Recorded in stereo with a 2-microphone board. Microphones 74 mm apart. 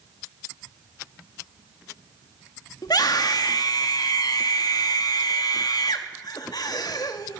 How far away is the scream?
About 2.5 m.